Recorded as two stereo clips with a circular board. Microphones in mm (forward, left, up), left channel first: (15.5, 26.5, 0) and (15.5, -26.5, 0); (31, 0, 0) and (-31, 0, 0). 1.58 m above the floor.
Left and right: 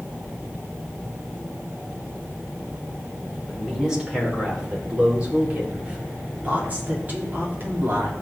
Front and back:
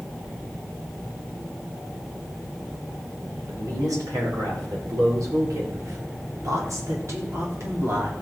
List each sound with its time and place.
3.5 s a woman speaking: 170° right, 6 m; by 8.1 s 135° right, 3.5 m